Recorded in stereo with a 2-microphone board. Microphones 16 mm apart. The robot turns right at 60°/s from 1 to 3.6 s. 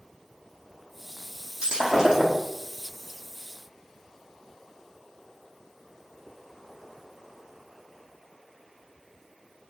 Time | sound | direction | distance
1.6 | breaking glass | 80° right | 6.5 m